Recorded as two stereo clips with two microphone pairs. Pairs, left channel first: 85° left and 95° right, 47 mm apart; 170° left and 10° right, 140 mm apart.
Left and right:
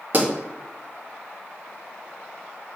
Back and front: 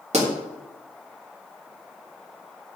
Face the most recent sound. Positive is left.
turn(degrees=-45)